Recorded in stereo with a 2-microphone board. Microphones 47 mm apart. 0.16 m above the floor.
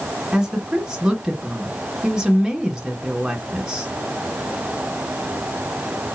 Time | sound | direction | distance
0.3 | a woman speaking | 10° right (ahead or behind) | 1.6 m